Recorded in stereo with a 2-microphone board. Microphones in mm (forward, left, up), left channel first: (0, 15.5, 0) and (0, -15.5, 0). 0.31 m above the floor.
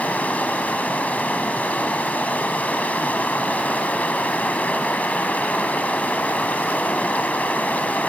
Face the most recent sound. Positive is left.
turn(degrees=60)  # may be behind; listen again after turning